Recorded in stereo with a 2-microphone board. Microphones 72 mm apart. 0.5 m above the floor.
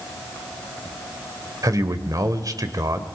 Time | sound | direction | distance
1.6 | a man speaking | 50° right (ahead or behind) | 1.7 m